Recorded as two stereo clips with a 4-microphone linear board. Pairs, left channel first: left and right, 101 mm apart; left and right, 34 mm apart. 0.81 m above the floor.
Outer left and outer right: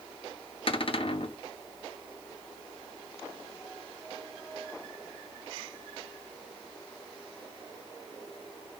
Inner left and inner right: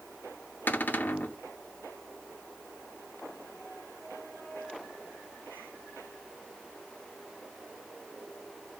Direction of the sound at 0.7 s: 60° left (ahead or behind).